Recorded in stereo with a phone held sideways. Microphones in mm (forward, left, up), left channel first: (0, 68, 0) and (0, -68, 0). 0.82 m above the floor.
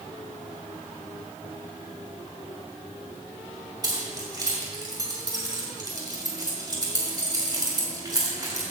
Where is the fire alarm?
I don't hear a fire alarm.